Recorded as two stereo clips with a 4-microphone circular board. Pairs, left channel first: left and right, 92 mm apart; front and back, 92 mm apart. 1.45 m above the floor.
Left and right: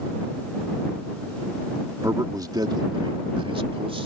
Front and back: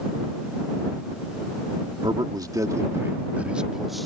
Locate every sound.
2.0 s a man speaking: 145° right; by 4.1 s 90° right